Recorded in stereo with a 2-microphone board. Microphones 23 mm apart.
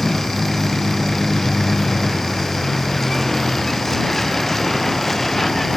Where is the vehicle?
20° left (ahead or behind); by 5.8 s 15° left (ahead or behind).